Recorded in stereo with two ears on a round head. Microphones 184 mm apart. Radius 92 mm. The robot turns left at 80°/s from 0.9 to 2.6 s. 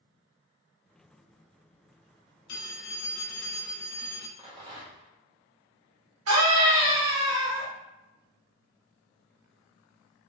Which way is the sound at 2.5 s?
55° left (ahead or behind).